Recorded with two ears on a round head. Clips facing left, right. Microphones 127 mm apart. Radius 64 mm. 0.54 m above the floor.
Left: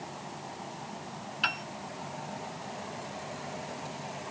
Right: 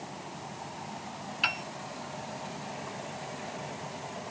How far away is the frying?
I don't hear frying.